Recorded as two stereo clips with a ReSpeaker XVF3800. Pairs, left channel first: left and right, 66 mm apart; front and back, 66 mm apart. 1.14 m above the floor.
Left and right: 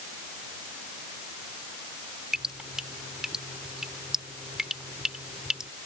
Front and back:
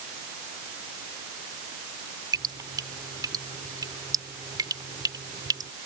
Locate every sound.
2.3 s dripping: 170° right